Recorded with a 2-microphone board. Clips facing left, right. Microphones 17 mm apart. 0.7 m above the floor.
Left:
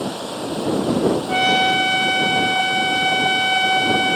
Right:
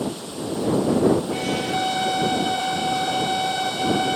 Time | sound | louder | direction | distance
0.0 | running water | left 3 dB | 80° left | ?
1.3 | a trumpet | left 8 dB | 60° left (ahead or behind) | ?